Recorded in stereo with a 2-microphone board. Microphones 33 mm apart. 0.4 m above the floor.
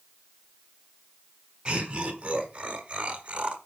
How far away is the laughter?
About 2.5 m.